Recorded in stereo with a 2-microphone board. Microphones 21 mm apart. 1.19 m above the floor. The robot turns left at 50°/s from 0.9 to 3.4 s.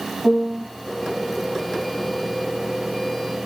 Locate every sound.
0.2 s a piano: 40° left (ahead or behind), 6 m